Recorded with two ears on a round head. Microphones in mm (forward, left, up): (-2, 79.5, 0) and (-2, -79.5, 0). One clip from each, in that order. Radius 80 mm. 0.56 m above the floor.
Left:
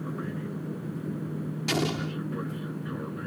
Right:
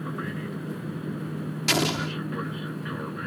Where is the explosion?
35° right (ahead or behind).